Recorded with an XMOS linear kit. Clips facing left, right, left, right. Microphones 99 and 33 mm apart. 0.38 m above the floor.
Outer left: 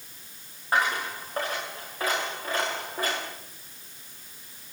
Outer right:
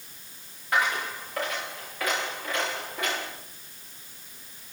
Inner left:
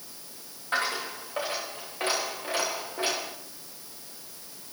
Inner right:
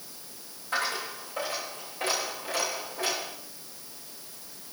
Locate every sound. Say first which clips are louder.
0.7 s a dropped coin: outer left 1 dB, inner left 1 dB; 35° left (ahead or behind), 8.5 m